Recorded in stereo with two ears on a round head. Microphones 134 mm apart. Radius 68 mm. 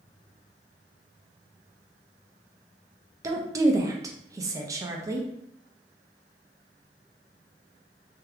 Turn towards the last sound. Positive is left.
turn(degrees=-20)  # may be behind; listen again after turning